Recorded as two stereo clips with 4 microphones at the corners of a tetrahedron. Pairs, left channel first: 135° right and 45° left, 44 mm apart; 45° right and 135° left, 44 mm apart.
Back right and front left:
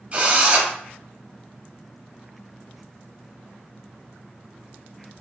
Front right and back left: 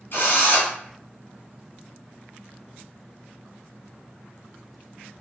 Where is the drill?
10° right, 1.3 m.